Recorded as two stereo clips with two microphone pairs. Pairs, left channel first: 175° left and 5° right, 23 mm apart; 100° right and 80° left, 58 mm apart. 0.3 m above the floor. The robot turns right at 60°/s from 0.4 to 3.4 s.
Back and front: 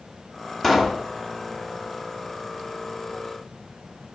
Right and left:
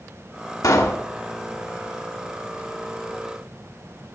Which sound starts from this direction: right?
A pop, at 0.6 s.